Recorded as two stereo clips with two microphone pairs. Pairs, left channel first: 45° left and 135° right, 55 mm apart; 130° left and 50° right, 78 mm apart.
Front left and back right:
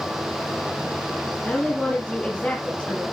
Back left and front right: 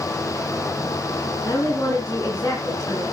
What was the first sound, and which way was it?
A woman speaking, 100° left.